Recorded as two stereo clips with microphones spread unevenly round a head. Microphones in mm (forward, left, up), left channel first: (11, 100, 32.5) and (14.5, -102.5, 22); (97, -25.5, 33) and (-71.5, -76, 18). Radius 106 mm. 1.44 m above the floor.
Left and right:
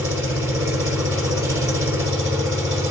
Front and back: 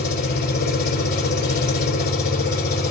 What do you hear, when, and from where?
0.0 s an engine running: 10° right, 3.5 m